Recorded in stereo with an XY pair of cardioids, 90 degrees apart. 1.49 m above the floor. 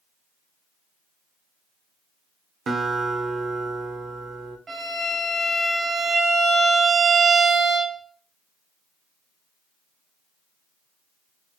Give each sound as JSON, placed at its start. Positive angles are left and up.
{"t": 2.7, "sound": "a guitar", "azimuth_deg": -55, "distance_m": 0.7}
{"t": 4.7, "sound": "a violin", "azimuth_deg": -45, "distance_m": 1.1}